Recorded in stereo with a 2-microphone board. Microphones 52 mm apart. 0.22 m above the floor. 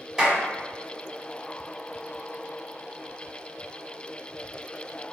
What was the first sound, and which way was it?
A clap, 10° right (ahead or behind).